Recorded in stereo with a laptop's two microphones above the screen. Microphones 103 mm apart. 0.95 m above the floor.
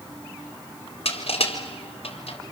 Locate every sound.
1.1 s crushing: 75° left (ahead or behind), 3.5 m